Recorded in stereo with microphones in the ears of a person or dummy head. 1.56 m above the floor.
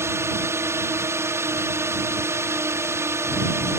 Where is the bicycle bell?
No bicycle bell in this recording.